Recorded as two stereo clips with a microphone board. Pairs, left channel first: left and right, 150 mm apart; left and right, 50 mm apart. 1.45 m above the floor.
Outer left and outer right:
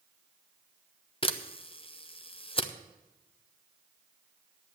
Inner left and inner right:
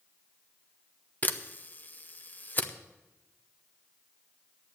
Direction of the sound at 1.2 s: 40° left (ahead or behind).